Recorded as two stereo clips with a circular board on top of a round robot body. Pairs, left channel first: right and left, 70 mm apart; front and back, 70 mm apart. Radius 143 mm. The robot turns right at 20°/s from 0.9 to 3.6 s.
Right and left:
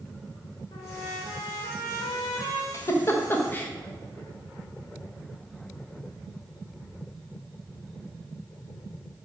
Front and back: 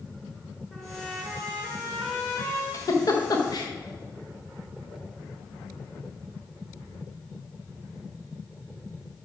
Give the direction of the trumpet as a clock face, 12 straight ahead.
3 o'clock.